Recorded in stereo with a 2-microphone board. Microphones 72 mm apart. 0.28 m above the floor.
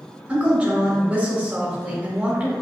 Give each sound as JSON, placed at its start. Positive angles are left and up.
{"t": 0.3, "sound": "a woman speaking", "side_deg": -20, "distance_m": 0.9}